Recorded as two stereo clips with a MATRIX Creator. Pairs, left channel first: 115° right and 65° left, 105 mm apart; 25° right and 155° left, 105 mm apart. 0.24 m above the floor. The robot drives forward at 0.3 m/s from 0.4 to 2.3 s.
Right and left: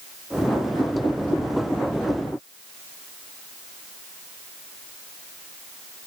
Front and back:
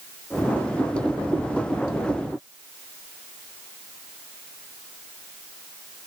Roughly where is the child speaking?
I don't hear a child speaking.